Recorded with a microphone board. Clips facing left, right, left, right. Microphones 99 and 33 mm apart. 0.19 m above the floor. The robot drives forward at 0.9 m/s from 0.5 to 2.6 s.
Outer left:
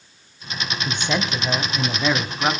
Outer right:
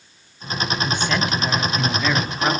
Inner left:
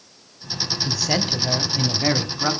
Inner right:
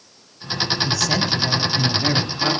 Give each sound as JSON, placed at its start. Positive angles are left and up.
{"t": 0.8, "sound": "a man speaking", "side_deg": 20, "distance_m": 1.6}